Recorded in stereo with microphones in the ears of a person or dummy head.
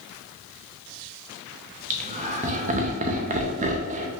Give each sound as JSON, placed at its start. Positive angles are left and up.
{"t": 1.9, "sound": "laughter", "side_deg": -35, "distance_m": 0.7}